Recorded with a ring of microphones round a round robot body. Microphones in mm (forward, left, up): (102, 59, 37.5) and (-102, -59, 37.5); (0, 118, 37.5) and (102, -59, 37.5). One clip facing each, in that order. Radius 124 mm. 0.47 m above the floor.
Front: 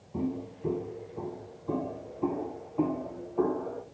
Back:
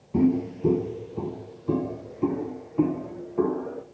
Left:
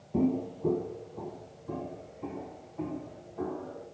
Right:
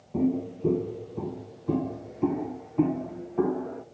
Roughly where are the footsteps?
Behind right.